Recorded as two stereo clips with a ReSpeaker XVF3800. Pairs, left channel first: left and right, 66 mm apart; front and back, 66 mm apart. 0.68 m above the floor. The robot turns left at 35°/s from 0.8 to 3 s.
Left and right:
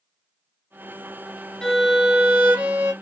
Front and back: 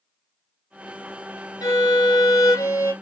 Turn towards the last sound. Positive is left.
turn(degrees=-40)